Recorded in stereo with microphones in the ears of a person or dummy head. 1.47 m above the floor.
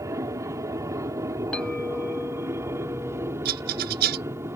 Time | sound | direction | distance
0.0 | an aircraft | 15° right (ahead or behind) | ?
1.5 | a clink | 5° left (ahead or behind) | ?
3.5 | a rattle | 55° right (ahead or behind) | ?